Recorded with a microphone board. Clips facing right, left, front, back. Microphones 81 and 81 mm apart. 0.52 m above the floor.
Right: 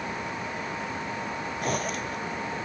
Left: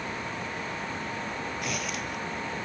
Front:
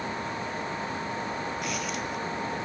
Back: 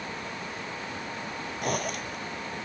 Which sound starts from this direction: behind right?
A zipper, at 1.6 s.